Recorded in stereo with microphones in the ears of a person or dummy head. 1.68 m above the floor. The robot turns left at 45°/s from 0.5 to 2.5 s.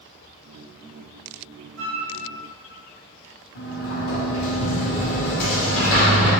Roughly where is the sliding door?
Left.